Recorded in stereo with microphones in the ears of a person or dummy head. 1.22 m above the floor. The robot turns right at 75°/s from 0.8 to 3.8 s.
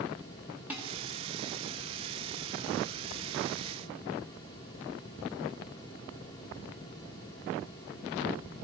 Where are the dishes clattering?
5° right (ahead or behind), 1.6 m; by 0.9 s 15° right (ahead or behind), 1.6 m.